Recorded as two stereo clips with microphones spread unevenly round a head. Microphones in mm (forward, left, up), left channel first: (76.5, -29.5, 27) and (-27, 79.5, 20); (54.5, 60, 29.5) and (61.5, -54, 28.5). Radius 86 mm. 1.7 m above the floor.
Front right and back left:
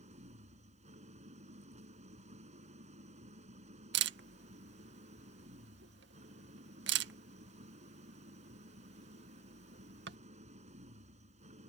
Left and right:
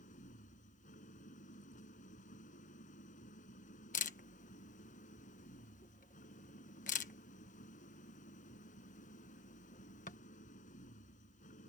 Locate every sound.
0.0 s an engine running: 90° left
3.9 s a camera shutter: 135° left